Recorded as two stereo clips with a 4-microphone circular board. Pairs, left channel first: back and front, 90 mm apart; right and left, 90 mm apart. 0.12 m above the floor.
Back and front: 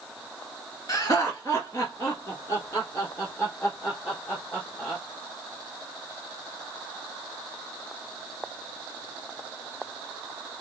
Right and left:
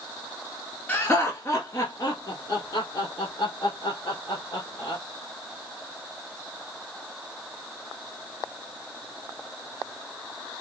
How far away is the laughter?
About 1.4 m.